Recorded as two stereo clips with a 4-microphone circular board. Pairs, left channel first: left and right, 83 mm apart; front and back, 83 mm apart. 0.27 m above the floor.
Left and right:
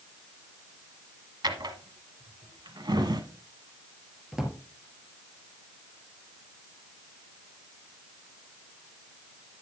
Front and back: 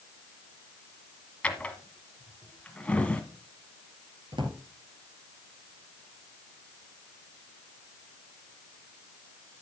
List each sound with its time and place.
1.4 s a drawer: 75° right, 1.3 m
4.3 s a drawer: 170° right, 2.5 m